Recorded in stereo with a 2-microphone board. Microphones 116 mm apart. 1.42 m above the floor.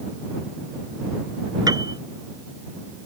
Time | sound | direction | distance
1.7 | a piano | 35° right (ahead or behind) | ?